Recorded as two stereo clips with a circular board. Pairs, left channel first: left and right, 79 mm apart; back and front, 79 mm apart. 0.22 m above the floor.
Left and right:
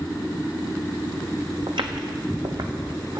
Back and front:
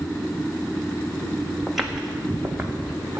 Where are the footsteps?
90° right, 0.9 m; by 3.2 s 75° right, 2.0 m.